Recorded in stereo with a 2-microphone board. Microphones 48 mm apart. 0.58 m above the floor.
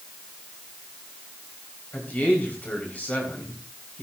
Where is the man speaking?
35° left (ahead or behind), 3.5 m.